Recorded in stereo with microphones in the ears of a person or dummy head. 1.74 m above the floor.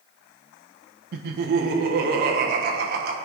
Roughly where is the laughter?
Right.